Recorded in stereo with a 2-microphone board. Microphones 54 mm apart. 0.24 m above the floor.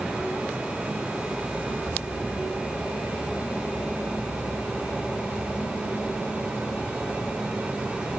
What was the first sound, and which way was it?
Only background noise.